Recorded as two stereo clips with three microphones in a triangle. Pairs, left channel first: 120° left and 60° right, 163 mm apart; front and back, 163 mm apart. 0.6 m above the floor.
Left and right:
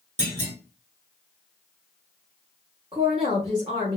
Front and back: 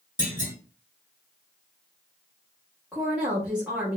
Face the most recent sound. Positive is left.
turn(degrees=-95)